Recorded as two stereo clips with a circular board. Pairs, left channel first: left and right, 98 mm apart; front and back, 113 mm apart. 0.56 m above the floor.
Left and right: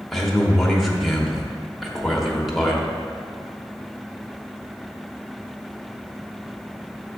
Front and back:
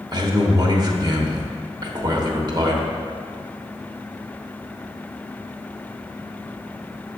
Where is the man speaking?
Straight behind, 1.1 m.